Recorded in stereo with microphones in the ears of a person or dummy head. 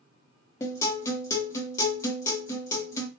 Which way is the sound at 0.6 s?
20° left (ahead or behind).